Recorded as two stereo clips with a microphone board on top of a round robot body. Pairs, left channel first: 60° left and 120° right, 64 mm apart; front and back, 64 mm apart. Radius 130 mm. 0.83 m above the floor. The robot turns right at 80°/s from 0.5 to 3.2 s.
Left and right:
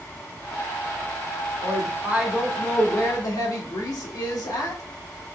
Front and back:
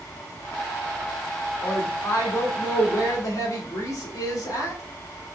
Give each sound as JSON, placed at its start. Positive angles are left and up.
{"t": 1.6, "sound": "a woman speaking", "azimuth_deg": -90, "distance_m": 1.9}